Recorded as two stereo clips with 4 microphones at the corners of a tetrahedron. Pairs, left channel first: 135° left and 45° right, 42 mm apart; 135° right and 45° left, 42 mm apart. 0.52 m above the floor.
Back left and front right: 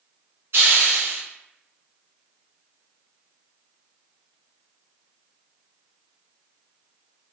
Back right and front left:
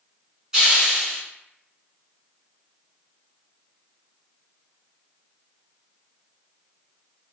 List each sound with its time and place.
0.5 s a hiss: 25° right, 1.1 m